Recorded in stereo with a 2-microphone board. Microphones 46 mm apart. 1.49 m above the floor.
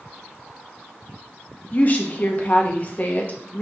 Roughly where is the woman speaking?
Left.